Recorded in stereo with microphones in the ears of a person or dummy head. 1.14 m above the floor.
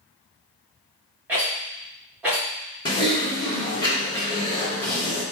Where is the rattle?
15° right (ahead or behind), 0.9 m.